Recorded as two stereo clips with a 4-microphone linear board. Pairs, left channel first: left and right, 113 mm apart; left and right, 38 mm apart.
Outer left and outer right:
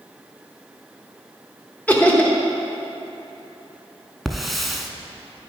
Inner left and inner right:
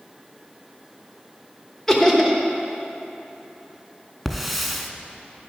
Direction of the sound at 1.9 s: 15° left (ahead or behind).